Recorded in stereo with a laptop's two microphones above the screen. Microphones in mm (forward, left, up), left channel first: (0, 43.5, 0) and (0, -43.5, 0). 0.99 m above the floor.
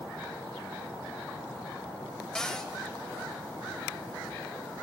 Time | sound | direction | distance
2.4 | a cupboard door | 10° left (ahead or behind) | 0.7 m